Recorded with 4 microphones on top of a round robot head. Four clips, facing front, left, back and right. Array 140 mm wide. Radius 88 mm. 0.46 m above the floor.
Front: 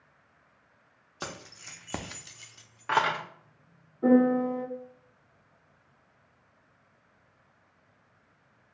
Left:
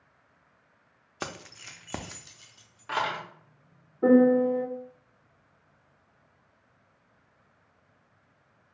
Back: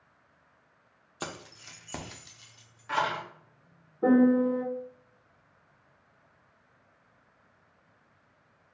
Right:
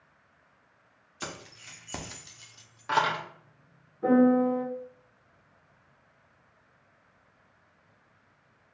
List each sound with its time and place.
1.2 s keys jangling: 105° left, 0.8 m; by 3.2 s 25° right, 1.1 m
4.0 s a piano: 120° left, 1.4 m